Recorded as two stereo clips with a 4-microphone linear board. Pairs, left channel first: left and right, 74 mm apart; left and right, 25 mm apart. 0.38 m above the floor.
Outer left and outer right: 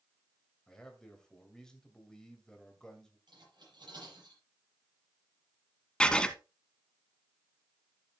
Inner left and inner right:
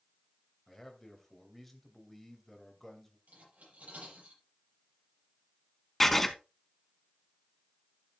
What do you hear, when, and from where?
0.7 s a man speaking: 10° left (ahead or behind), 2 m
3.3 s cutlery clinking: 85° right, 6.5 m
6.0 s writing: 10° left (ahead or behind), 0.9 m